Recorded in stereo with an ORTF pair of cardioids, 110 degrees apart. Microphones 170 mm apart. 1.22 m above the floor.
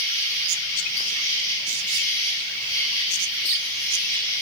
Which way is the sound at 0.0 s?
20° left.